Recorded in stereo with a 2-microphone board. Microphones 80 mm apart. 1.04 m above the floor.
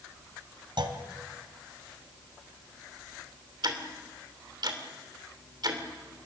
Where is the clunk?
70° right (ahead or behind), 2 m.